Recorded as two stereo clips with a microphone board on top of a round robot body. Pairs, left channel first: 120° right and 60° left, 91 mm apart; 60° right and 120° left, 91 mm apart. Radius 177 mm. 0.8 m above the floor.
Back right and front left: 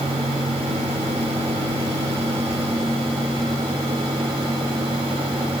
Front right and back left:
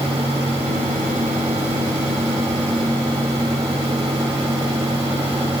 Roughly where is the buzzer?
No buzzer in this recording.